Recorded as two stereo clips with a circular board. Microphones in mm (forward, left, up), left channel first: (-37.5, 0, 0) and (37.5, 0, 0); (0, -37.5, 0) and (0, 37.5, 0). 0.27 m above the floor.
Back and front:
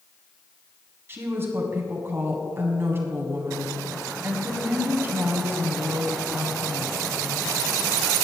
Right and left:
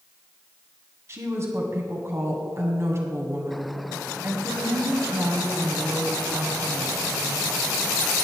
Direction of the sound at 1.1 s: 50° left.